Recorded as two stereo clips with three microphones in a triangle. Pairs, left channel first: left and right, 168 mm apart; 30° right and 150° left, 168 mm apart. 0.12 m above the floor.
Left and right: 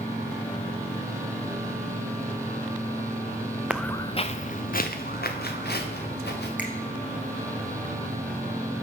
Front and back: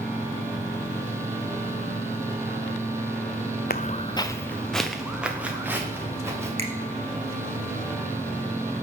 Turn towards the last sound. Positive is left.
turn(degrees=-170)